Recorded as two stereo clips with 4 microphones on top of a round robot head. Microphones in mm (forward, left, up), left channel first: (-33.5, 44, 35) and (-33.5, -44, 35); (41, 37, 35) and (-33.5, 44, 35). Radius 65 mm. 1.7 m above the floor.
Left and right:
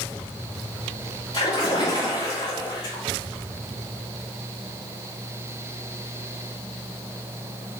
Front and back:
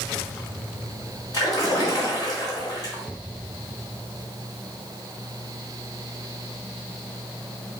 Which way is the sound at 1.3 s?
30° left.